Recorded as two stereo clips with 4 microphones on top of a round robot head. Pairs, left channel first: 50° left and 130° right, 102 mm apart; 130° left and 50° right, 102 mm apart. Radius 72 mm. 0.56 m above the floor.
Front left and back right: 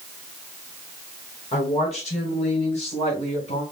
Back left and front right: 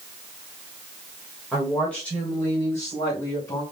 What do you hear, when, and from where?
1.5 s a woman speaking: 45° left, 1.9 m; by 3.6 s 65° left, 3 m